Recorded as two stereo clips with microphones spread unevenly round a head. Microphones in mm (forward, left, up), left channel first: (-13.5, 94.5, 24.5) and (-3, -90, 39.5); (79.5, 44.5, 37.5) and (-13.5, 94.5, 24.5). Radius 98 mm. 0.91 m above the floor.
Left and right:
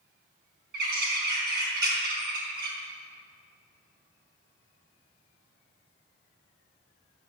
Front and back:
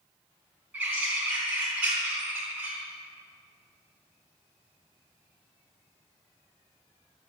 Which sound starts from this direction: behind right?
A bird, at 0.7 s.